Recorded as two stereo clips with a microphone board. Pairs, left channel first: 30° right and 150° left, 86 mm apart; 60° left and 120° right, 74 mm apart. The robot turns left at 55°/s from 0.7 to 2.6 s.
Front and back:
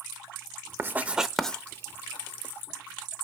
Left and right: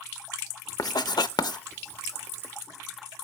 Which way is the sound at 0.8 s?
90° left.